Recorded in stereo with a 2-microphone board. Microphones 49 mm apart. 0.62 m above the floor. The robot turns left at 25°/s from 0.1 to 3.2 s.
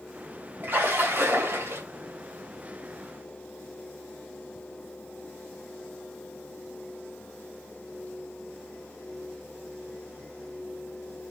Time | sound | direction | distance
0.6 | a splash | 45° right (ahead or behind) | 3 m